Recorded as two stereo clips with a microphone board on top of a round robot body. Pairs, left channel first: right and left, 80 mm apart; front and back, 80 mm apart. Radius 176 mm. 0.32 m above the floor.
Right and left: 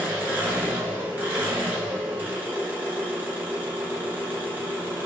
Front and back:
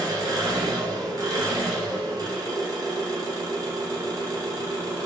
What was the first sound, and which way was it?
An engine running, 155° left.